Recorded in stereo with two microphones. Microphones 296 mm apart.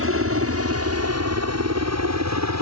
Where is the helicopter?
45° right (ahead or behind); by 2.6 s 60° right (ahead or behind).